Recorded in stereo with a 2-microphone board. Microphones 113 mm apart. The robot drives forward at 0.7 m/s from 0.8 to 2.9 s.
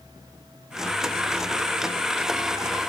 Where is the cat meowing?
No cat meowing in this recording.